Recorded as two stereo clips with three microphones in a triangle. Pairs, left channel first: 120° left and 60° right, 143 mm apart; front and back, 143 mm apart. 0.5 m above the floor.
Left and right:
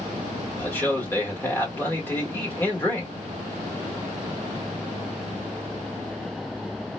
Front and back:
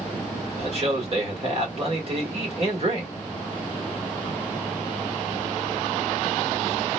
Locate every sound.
0.6 s a man speaking: 170° right, 1.5 m